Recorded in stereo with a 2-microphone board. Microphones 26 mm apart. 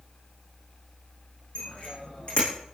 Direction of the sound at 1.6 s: 50° left (ahead or behind).